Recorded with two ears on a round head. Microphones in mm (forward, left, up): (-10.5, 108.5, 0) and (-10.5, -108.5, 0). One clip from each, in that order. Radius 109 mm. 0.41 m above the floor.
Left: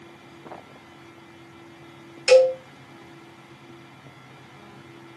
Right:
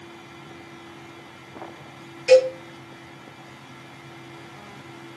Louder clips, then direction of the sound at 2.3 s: Even; 55° left (ahead or behind).